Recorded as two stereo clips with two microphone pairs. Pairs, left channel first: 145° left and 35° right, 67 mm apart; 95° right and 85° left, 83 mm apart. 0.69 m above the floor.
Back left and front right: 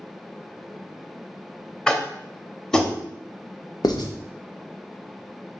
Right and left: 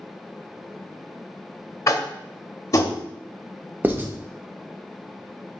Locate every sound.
1.9 s tapping: 135° right, 0.6 m
3.8 s writing: 150° left, 0.5 m